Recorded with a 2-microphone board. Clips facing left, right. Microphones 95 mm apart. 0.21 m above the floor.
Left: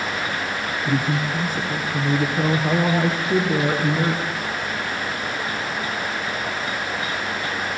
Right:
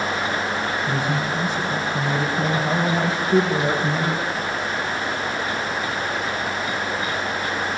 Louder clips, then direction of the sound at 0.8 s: Even; 40° left (ahead or behind).